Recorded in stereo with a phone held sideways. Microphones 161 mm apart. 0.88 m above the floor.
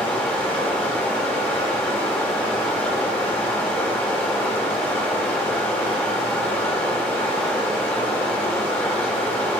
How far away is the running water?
About 2 m.